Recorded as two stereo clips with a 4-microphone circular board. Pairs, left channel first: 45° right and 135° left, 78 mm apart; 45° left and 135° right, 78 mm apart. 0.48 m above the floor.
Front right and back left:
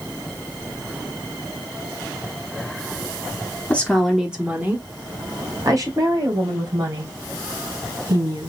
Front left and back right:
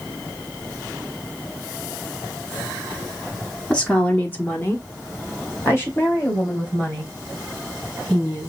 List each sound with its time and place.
3.7 s a woman speaking: 15° right, 1.0 m; by 8.5 s 105° left, 4 m